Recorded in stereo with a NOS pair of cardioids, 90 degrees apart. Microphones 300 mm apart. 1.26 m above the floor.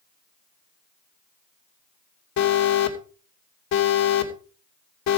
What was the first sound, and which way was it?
An alarm, 65° left.